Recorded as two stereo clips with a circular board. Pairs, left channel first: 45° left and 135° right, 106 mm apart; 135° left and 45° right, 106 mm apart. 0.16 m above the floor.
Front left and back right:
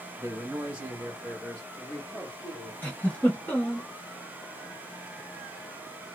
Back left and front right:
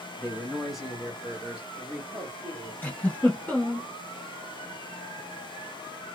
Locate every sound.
0.2 s a man speaking: 135° right, 1.6 m; by 2.7 s 30° left, 1.8 m
2.8 s a giggle: 85° left, 1.0 m